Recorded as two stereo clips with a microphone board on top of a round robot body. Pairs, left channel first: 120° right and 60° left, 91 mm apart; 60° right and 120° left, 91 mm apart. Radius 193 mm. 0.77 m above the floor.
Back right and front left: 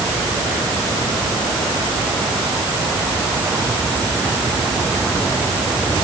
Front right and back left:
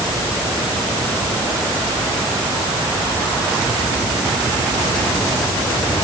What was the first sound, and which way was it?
Only background noise.